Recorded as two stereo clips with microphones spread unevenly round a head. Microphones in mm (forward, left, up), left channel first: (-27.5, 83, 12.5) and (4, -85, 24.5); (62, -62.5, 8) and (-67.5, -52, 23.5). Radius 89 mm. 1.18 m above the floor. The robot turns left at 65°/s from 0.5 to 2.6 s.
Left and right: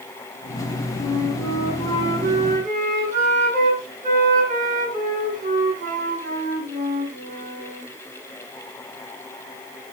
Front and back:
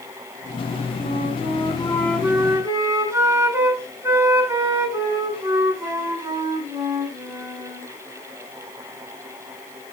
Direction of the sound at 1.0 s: 20° right.